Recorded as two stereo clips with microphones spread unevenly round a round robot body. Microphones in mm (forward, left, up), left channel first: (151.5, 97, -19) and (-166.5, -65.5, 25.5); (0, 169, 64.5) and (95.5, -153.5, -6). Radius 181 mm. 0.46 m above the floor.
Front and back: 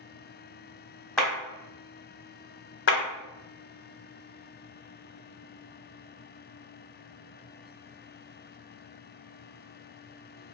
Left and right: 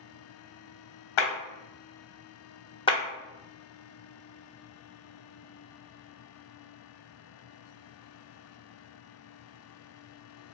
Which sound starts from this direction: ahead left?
A clap, at 2.9 s.